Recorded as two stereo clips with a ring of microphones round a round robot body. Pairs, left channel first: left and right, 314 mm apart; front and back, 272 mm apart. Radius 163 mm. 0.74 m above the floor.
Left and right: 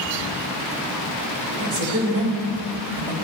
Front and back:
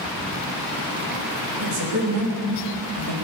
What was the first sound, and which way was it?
A woman speaking, 135° right.